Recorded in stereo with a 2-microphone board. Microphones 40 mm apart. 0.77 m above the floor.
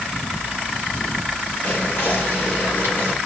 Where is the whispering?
75° left (ahead or behind), 1.9 m.